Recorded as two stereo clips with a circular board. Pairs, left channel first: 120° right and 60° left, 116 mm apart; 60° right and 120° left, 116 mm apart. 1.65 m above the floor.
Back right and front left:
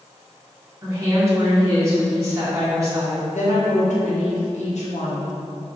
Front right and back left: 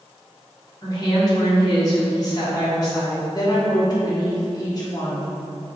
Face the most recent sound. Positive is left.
turn(degrees=-115)